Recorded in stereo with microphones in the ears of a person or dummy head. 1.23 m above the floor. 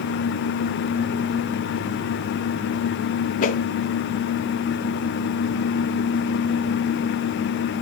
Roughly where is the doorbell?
I don't hear a doorbell.